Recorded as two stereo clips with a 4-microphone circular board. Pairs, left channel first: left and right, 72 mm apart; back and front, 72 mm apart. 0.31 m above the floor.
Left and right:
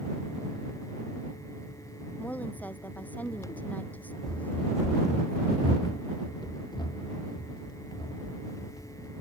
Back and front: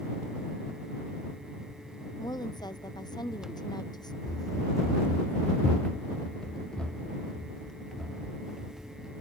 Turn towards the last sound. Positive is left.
turn(degrees=90)